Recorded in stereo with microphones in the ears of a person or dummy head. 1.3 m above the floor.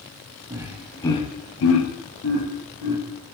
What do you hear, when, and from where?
0.5 s laughter: 15° right (ahead or behind), 0.7 m; by 3.0 s 75° left (ahead or behind), 1.4 m